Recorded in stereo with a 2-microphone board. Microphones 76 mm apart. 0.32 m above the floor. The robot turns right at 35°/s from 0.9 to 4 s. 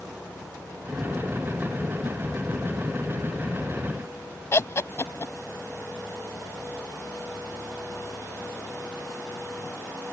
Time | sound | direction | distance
4.5 | laughter | 40° left (ahead or behind) | ?